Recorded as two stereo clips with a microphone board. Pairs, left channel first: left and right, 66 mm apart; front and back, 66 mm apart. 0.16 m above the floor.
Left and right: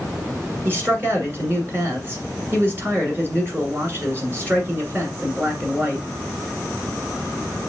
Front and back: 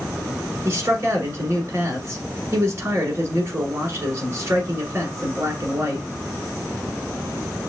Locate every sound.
0.7 s a man speaking: 135° right, 1.7 m